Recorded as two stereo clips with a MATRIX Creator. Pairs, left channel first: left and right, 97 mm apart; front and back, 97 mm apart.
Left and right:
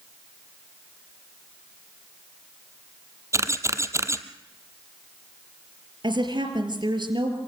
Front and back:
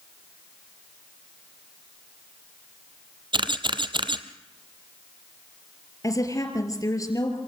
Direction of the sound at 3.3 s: 150° right.